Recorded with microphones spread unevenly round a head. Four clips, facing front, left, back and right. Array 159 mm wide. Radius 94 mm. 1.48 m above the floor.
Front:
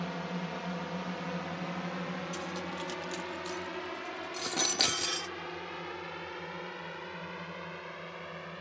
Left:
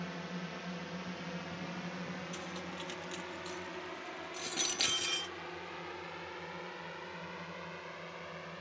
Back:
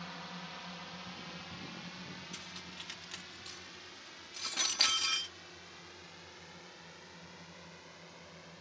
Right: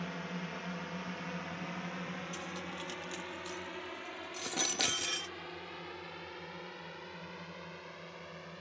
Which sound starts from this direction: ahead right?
A drone, at 0.0 s.